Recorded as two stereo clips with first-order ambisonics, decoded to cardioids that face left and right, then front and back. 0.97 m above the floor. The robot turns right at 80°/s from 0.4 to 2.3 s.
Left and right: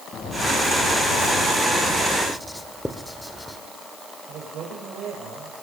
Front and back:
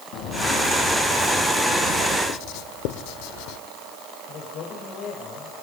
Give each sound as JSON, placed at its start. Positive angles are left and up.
{"t": 0.1, "sound": "footsteps", "azimuth_deg": 15, "distance_m": 8.5}
{"t": 2.3, "sound": "writing", "azimuth_deg": 0, "distance_m": 1.2}
{"t": 4.3, "sound": "a man speaking", "azimuth_deg": -40, "distance_m": 4.0}